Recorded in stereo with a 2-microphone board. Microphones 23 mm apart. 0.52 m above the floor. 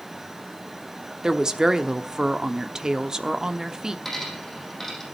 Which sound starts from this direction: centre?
A dropped coin, at 4.0 s.